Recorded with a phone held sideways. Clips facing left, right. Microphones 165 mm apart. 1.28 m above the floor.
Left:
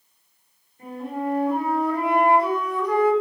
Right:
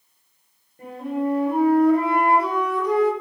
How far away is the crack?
I don't hear a crack.